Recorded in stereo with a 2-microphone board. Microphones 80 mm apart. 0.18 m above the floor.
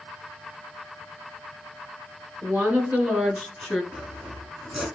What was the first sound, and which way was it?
A woman speaking, 25° right (ahead or behind).